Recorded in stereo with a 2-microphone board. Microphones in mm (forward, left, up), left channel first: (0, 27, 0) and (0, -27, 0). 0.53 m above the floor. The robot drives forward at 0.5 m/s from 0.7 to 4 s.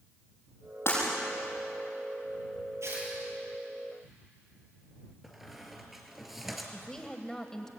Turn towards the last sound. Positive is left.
turn(degrees=10)  # may be behind; listen again after turning